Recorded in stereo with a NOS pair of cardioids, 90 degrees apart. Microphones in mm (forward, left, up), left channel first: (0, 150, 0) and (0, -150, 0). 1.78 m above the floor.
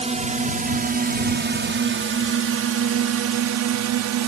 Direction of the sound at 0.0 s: 20° right.